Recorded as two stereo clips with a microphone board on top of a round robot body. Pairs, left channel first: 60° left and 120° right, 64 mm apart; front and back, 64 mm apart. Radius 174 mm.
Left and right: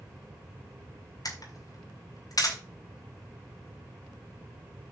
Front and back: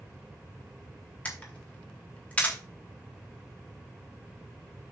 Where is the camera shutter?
70° left, 3.5 m.